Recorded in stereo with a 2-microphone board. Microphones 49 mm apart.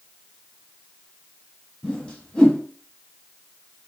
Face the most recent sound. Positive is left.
turn(degrees=20)  # may be behind; listen again after turning